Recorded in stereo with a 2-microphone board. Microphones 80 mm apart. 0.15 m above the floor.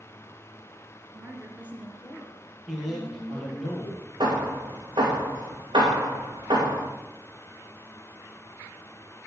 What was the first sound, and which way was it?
A woman speaking, 35° right (ahead or behind).